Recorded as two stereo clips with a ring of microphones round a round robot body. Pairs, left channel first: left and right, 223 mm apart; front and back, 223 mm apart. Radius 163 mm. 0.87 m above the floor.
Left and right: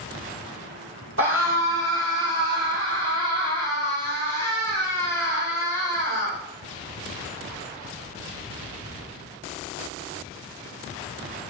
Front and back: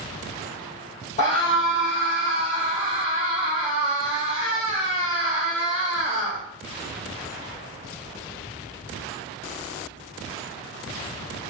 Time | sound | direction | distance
1.2 | a scream | 70° right | 4.5 m